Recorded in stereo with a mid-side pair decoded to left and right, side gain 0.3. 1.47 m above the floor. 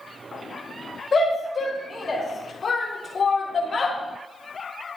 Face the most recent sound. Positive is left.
turn(degrees=50)